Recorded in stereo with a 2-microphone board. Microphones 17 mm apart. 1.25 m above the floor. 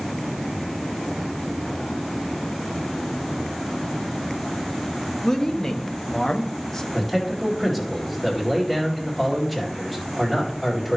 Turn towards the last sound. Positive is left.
turn(degrees=5)  # may be behind; listen again after turning